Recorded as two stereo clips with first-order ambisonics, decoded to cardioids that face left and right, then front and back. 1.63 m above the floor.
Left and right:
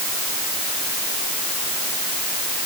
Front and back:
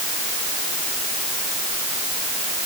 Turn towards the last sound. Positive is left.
No sound to turn to.